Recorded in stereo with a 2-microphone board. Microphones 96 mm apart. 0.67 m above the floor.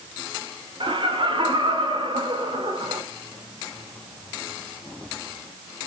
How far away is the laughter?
About 2.5 m.